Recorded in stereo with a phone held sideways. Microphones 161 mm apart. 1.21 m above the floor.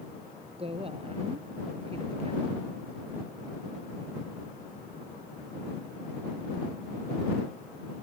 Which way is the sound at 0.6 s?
35° right (ahead or behind).